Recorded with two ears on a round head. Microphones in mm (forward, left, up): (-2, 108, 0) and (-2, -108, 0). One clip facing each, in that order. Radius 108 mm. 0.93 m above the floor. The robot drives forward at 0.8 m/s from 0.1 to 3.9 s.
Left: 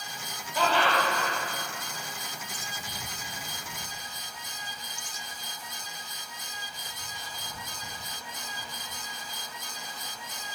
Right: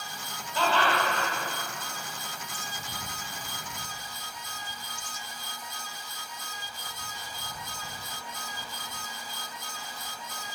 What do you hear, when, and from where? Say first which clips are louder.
0.6 s laughter: left 1 dB; 10° left (ahead or behind), 3.5 m; by 1.3 s 15° left (ahead or behind), 3 m